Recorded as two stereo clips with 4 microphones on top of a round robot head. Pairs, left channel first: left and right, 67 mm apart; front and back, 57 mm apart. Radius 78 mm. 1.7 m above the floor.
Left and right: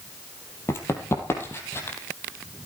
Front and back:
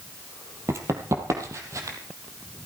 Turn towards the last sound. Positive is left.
turn(degrees=145)